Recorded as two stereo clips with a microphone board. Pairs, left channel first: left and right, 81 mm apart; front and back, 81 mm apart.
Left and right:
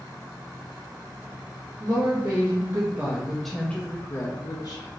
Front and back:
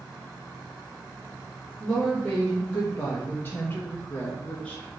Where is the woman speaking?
70° right, 1.0 m; by 4.9 s 75° left, 1.0 m.